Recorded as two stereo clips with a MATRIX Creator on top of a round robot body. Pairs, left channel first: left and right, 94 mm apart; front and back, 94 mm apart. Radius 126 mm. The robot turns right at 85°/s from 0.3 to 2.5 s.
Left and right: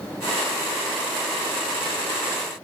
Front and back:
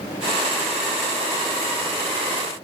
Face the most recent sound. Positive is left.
No sound to turn to.